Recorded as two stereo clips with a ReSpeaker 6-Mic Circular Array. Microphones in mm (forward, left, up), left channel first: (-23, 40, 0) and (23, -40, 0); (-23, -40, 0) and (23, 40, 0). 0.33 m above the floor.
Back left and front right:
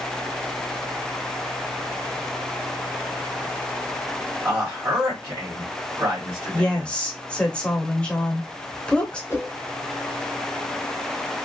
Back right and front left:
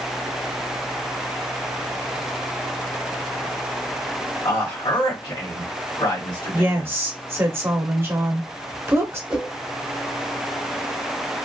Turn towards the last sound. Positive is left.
turn(degrees=120)